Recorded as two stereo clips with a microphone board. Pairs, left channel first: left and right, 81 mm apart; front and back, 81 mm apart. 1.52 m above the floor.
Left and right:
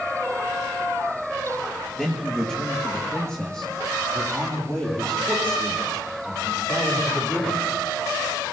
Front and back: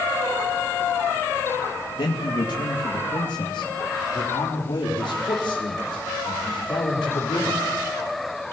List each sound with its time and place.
2.0 s a man speaking: straight ahead, 2.5 m; by 7.6 s 15° left, 6 m